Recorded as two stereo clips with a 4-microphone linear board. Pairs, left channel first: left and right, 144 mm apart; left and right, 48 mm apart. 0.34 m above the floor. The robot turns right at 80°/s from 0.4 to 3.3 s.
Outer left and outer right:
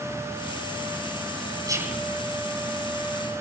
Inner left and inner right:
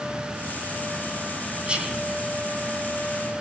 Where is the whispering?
30° right, 3 m; by 2.1 s 5° left, 3 m.